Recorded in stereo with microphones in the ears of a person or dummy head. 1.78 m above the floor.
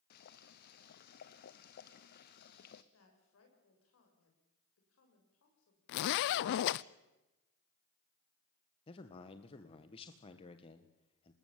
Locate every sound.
0.1 s boiling: 55° left (ahead or behind), 1.0 m
2.9 s a woman speaking: 85° left, 6 m
5.9 s a zipper: 60° left (ahead or behind), 0.6 m
8.9 s a man speaking: 30° left (ahead or behind), 1.5 m